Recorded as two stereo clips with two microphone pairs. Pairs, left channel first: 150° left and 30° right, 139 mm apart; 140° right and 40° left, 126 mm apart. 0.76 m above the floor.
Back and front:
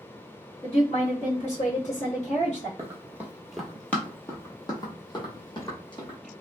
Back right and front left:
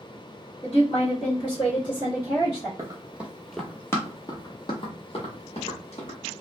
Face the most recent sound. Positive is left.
turn(degrees=-160)